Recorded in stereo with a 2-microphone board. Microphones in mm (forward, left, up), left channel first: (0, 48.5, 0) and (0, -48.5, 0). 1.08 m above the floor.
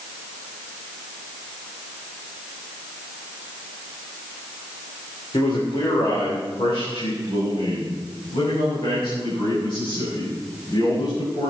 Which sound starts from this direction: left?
A man speaking, at 5.3 s.